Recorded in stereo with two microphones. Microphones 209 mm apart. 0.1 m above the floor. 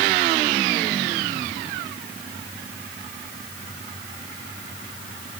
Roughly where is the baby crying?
No baby crying in this recording.